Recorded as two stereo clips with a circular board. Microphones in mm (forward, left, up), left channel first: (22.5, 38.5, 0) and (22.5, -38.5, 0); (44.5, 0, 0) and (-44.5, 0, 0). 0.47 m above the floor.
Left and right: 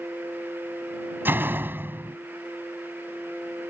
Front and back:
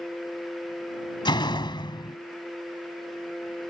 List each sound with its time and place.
1.2 s a door slam: 25° right